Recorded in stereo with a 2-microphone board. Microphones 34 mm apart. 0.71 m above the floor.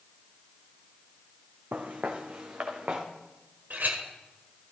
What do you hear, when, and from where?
1.7 s footsteps: 55° right (ahead or behind), 1.9 m; by 3.0 s 45° right (ahead or behind), 2.5 m
3.7 s a clink: 60° right (ahead or behind), 1.6 m